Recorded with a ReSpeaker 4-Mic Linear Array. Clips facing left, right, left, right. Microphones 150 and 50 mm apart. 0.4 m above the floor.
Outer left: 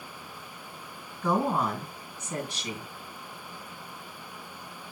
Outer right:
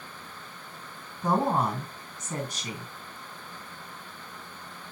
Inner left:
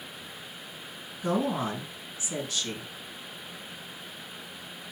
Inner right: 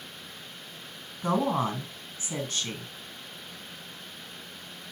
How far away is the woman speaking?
About 2.5 m.